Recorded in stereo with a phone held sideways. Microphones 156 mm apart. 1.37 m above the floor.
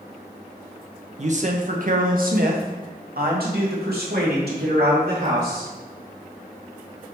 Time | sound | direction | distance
1.2 | a man speaking | 45° right (ahead or behind) | 1.1 m